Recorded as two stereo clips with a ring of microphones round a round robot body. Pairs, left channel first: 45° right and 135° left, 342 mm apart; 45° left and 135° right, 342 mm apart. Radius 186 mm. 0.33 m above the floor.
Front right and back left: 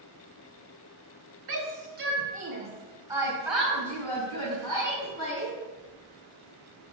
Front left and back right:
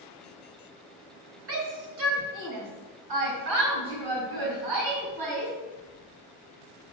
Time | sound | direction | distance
1.5 | a shout | straight behind | 2.5 m